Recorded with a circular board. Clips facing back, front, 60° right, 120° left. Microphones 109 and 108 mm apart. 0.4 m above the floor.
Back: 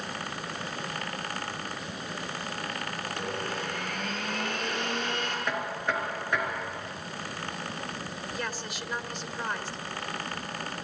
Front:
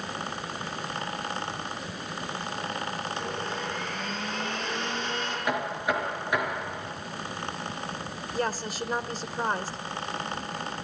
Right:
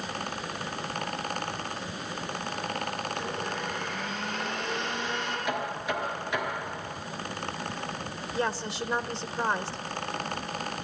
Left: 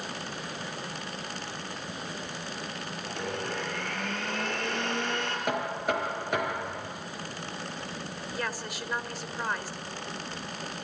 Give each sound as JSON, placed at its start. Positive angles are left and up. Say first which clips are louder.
{"t": 3.1, "sound": "a blender", "louder": "front 1 dB, right 1 dB", "azimuth_deg": 145, "distance_m": 6.5}
{"t": 5.5, "sound": "knocking", "louder": "front 5 dB, left 3 dB", "azimuth_deg": 80, "distance_m": 4.0}
{"t": 8.3, "sound": "a woman speaking", "louder": "front 9 dB, right 6 dB", "azimuth_deg": -15, "distance_m": 1.1}